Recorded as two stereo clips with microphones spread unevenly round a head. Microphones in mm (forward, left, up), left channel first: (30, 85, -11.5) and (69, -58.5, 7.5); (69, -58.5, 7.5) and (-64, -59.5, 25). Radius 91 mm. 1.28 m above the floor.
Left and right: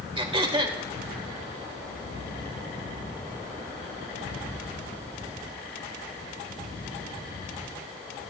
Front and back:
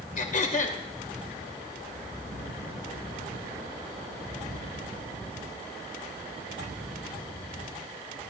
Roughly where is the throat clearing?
Ahead right.